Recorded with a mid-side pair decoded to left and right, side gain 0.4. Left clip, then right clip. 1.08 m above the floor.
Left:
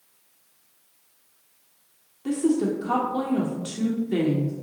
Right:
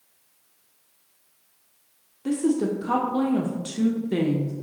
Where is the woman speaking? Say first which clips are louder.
Even; 25° right, 0.7 m.